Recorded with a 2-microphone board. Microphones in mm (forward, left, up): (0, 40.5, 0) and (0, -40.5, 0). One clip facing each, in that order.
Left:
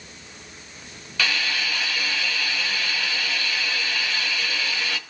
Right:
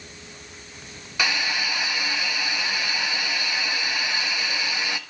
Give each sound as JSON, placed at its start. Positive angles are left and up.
{"t": 1.2, "sound": "a hiss", "side_deg": -15, "distance_m": 1.4}